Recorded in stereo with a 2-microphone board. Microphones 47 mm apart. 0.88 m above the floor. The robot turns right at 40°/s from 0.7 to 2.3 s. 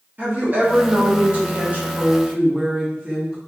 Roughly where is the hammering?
I don't hear hammering.